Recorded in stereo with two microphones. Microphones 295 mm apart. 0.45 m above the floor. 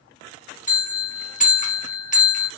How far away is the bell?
About 0.7 m.